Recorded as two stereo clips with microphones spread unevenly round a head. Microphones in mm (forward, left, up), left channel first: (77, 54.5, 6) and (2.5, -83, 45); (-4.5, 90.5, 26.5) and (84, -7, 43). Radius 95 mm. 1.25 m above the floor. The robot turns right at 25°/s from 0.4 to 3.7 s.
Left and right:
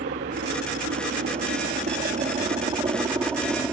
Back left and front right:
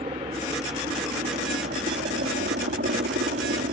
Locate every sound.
0.0 s a helicopter: 105° right; by 3.7 s 40° right